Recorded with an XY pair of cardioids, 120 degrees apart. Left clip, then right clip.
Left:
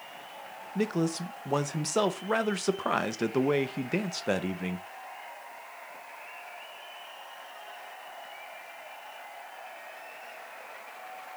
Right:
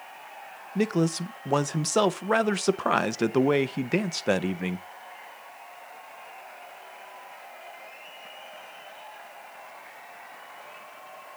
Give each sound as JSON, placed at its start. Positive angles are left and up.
{"t": 0.8, "sound": "a man speaking", "azimuth_deg": -25, "distance_m": 0.7}